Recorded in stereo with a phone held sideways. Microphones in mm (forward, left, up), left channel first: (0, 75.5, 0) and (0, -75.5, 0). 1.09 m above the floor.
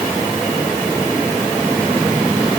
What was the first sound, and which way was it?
Only background noise.